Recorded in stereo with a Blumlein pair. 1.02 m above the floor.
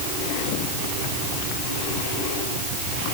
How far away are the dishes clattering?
No dishes clattering in this recording.